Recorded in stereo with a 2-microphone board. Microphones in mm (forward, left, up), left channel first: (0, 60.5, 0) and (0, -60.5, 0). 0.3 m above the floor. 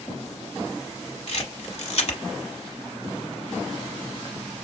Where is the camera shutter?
60° left (ahead or behind), 1.1 m.